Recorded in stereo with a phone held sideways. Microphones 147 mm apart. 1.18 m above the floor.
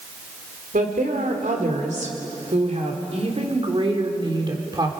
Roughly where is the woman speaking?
Right.